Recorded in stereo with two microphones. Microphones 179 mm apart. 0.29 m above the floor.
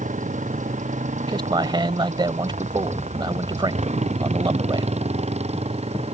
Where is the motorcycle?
45° right (ahead or behind); by 6.1 s 35° right (ahead or behind).